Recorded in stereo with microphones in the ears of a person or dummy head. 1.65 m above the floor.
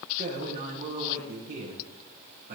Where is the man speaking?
50° right (ahead or behind), 1.8 m.